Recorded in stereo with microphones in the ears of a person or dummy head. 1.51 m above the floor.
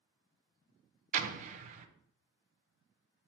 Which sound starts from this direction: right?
An explosion, at 1.1 s.